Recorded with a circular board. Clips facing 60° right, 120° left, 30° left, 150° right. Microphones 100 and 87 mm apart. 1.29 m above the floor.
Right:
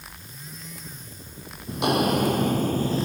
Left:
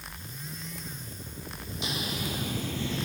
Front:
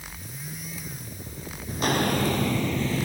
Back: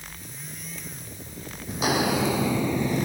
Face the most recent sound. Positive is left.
turn(degrees=-85)